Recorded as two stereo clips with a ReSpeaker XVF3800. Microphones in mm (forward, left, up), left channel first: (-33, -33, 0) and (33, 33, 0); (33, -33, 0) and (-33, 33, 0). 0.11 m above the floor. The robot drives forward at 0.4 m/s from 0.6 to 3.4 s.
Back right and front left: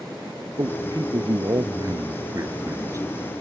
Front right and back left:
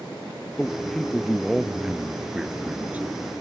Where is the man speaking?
35° left; by 3.1 s 75° left.